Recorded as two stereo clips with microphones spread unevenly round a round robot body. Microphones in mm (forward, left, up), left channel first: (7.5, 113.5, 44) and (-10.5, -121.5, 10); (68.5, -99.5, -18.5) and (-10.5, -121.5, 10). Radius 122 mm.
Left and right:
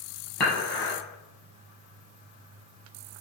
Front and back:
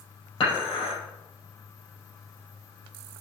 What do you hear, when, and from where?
0.4 s dishes clattering: straight ahead, 5.5 m